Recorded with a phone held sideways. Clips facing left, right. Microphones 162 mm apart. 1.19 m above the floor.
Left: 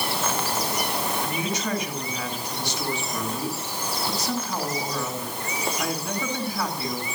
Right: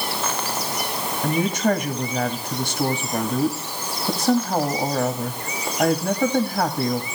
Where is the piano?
I don't hear a piano.